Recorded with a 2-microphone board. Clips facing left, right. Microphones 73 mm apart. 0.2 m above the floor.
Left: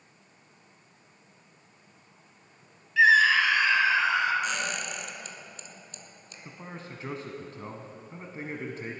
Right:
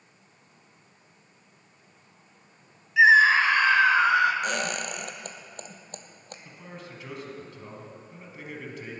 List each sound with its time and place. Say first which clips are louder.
3.0 s a scream: right 3 dB; 15° right (ahead or behind), 1.0 m; by 4.3 s 60° right (ahead or behind), 2 m
4.4 s a squeak: right 2 dB; 55° right (ahead or behind), 1.3 m
6.5 s a man speaking: left 3 dB; 35° left (ahead or behind), 1.3 m